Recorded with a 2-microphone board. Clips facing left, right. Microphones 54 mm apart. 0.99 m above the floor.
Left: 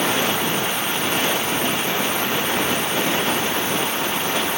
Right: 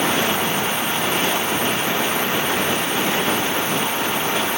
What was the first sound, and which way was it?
Only background noise.